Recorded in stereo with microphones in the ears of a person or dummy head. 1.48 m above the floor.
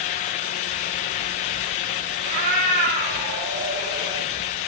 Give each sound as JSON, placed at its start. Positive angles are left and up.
{"t": 2.2, "sound": "a cat meowing", "side_deg": -55, "distance_m": 2.5}